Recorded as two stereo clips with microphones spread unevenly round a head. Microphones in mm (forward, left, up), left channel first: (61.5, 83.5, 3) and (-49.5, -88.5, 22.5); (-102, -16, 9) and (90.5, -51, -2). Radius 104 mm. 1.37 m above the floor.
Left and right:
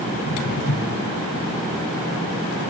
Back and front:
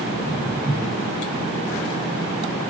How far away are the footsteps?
About 5 m.